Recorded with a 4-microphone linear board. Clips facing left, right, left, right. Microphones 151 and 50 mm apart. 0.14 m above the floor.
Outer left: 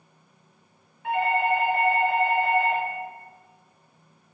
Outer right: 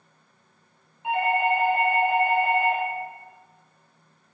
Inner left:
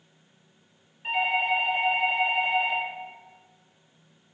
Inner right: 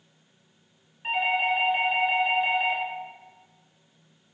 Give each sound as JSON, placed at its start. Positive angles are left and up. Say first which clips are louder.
{"t": 1.0, "sound": "a doorbell", "louder": "even, even", "side_deg": -20, "distance_m": 1.7}